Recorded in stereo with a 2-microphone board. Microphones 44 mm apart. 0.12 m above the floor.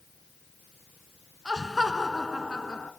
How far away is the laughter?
About 1.6 m.